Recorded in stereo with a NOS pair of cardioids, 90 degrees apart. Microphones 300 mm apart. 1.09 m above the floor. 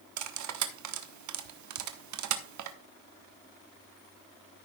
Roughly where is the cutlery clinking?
Ahead right.